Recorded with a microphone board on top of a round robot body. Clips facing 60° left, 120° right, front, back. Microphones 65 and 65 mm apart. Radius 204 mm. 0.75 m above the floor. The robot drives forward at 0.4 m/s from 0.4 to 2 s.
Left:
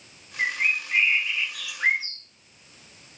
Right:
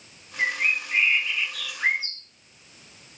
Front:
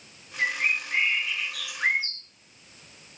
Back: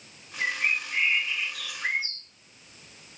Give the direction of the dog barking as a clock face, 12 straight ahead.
No dog barking in this recording.